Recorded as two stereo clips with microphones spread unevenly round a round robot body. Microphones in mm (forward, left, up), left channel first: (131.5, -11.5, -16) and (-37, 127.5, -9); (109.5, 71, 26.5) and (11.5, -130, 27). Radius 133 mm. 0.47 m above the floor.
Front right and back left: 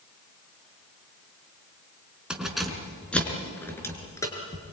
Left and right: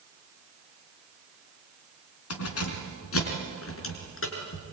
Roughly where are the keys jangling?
Ahead left.